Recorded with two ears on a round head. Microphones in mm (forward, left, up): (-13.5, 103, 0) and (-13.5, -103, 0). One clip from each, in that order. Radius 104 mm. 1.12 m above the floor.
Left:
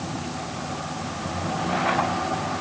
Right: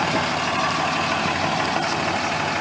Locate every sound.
Only background noise.